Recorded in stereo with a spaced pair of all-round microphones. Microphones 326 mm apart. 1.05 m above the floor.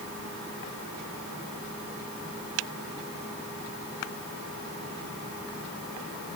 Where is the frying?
I don't hear frying.